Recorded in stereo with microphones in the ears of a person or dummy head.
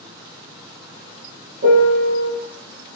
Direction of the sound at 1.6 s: 65° right (ahead or behind).